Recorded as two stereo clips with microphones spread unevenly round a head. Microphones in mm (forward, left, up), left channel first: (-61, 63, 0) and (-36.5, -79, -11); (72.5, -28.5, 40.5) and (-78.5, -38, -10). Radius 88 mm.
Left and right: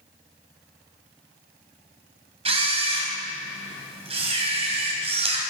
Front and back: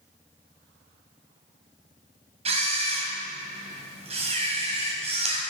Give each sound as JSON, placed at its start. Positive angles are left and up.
{"t": 2.5, "sound": "a camera shutter", "azimuth_deg": -120, "distance_m": 2.0}